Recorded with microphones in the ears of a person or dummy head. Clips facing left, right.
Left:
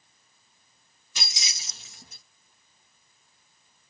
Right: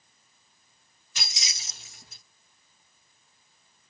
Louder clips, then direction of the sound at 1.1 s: Left 1 dB; 85° left.